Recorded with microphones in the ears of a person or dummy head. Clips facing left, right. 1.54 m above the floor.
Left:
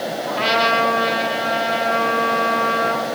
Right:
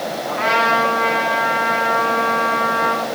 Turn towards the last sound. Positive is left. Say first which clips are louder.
# even
turn(degrees=50)  # may be behind; listen again after turning